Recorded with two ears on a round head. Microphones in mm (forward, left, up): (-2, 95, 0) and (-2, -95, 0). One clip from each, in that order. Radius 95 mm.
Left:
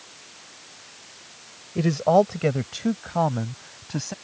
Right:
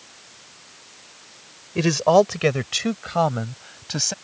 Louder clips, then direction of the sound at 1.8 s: Right 3 dB; 65° right (ahead or behind).